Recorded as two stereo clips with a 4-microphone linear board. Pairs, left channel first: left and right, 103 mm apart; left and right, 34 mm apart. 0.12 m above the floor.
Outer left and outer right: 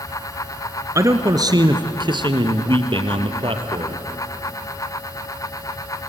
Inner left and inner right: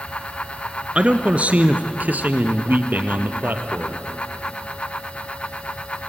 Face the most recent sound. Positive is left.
turn(degrees=-55)  # may be behind; listen again after turning